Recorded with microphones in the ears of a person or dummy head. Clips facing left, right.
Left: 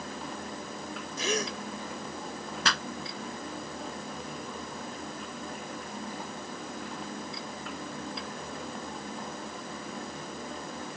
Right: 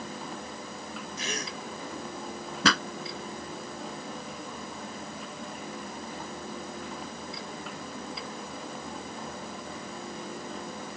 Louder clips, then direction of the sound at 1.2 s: Left 8 dB; 70° left (ahead or behind).